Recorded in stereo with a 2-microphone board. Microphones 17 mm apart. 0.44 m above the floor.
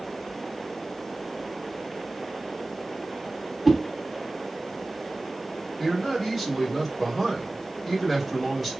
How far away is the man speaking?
About 2 m.